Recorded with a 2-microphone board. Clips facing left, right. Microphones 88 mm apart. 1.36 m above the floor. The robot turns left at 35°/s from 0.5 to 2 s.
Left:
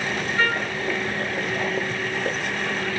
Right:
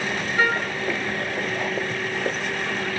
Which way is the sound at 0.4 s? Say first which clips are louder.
Right 2 dB; 15° right (ahead or behind).